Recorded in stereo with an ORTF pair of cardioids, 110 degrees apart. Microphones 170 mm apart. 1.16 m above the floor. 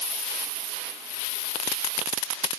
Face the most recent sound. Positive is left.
No sound to turn to.